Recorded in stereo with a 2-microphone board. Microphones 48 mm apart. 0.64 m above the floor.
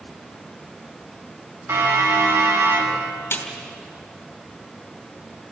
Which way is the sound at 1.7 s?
65° right (ahead or behind).